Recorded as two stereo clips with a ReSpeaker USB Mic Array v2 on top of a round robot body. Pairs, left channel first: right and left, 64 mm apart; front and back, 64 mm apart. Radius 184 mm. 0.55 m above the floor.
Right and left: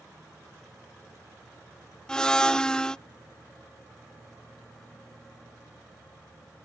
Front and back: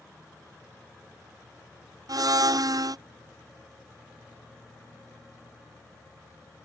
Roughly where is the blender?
Behind.